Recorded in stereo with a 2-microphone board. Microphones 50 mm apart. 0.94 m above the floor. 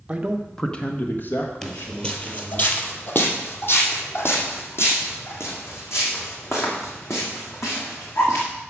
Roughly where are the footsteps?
Centre.